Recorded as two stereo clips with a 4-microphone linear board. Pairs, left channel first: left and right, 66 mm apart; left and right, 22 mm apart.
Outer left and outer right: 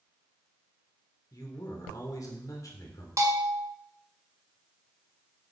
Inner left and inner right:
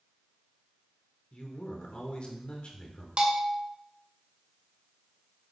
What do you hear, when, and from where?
1.3 s a man speaking: 55° left (ahead or behind), 2 m
3.2 s a bell: 50° right (ahead or behind), 1.8 m